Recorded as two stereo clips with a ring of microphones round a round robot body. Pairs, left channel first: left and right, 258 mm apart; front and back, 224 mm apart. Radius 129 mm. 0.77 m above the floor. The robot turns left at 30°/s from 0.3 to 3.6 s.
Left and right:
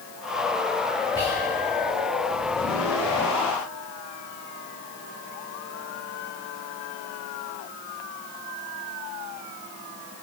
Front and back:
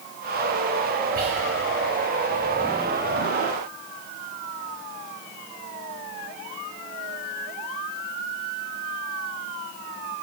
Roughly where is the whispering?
Behind.